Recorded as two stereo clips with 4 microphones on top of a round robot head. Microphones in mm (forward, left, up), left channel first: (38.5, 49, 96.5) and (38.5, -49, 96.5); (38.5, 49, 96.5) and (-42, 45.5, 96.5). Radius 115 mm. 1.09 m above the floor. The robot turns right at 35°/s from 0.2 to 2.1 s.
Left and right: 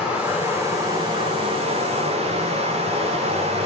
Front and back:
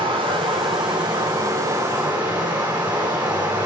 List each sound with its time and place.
0.0 s running water: 170° right, 4 m; by 3.7 s 105° right, 4 m